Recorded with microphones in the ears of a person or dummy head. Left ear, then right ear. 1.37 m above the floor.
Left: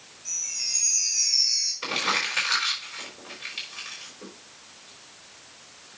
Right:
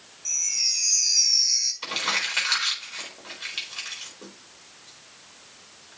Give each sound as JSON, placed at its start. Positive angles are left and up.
{"t": 0.2, "sound": "a chime", "side_deg": -35, "distance_m": 3.5}
{"t": 1.8, "sound": "crumpling", "side_deg": -15, "distance_m": 4.5}